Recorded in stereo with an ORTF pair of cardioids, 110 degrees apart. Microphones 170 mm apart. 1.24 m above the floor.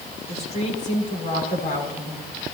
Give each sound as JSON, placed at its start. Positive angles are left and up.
{"t": 0.3, "sound": "a woman speaking", "azimuth_deg": 40, "distance_m": 7.0}